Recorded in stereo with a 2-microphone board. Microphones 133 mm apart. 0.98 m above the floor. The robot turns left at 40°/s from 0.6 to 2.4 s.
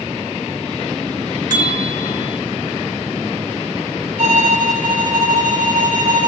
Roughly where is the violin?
Right.